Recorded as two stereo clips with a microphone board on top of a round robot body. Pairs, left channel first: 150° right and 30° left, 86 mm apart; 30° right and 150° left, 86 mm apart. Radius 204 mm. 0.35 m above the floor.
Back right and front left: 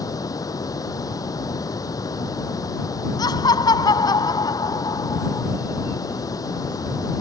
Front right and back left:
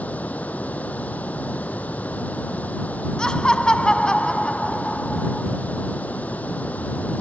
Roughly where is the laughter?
Right.